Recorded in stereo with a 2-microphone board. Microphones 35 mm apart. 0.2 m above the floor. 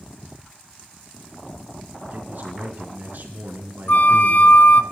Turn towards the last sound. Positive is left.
turn(degrees=65)  # may be behind; listen again after turning